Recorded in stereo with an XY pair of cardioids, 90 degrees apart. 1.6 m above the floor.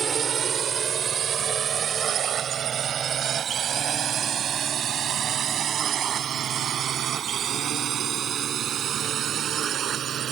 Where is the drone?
60° right; by 10.3 s 75° right.